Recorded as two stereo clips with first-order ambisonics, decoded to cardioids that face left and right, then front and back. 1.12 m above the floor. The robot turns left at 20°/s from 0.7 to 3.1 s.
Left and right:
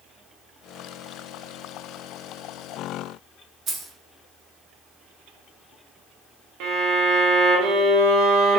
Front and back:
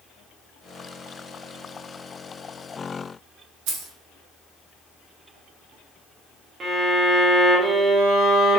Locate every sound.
3.7 s keys jangling: 155° right, 0.6 m
6.6 s a violin: 115° right, 0.5 m